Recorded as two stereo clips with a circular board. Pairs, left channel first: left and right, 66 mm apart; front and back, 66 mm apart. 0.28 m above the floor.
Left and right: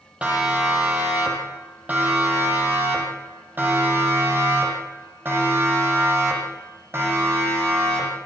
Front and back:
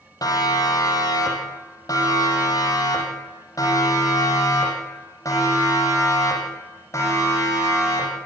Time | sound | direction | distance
0.2 | a siren | 20° right | 8 m